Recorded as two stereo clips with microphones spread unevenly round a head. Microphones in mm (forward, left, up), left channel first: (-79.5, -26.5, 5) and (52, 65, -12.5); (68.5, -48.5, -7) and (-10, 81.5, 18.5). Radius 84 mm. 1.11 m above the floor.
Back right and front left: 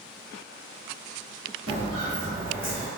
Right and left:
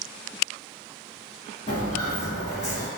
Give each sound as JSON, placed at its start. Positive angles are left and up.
{"t": 1.7, "sound": "footsteps", "azimuth_deg": 0, "distance_m": 1.4}